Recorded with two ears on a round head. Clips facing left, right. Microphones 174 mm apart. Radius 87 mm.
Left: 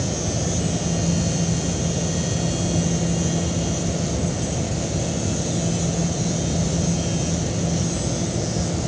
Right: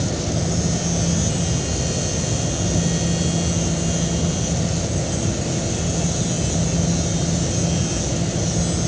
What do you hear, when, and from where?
Only background noise.